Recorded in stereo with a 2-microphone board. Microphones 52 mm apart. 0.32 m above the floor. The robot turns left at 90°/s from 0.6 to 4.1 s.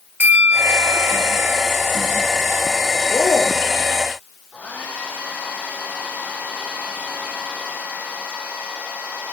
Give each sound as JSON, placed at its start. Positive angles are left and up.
{"t": 0.2, "sound": "a bell", "azimuth_deg": -40, "distance_m": 2.5}
{"t": 3.1, "sound": "a man speaking", "azimuth_deg": 135, "distance_m": 5.5}
{"t": 4.5, "sound": "a hair dryer", "side_deg": 20, "distance_m": 5.5}